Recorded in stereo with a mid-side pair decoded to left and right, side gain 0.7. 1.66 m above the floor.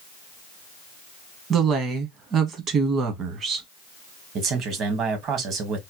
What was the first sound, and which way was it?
A woman speaking, 40° right.